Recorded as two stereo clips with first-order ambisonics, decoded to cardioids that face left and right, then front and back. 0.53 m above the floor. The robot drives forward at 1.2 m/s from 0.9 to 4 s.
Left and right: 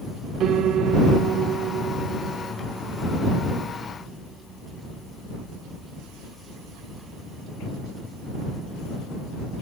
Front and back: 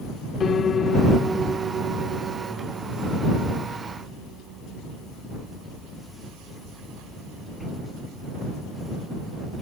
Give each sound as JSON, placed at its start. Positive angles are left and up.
{"t": 0.4, "sound": "a piano", "azimuth_deg": -55}